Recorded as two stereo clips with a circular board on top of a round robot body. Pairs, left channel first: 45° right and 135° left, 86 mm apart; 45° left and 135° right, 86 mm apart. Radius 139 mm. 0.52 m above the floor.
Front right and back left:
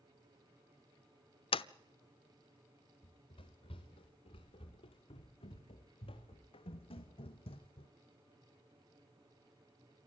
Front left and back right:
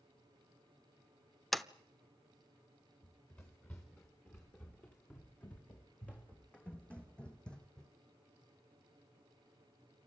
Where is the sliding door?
45° right, 0.7 m.